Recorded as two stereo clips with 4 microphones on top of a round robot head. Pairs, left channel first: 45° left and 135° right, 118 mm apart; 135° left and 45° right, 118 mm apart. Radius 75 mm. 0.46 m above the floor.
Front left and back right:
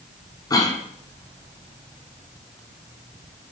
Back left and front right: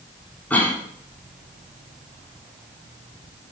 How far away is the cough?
About 1.4 m.